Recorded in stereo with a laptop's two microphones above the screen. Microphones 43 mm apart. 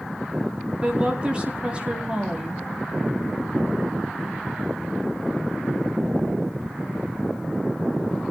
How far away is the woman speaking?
About 2.5 m.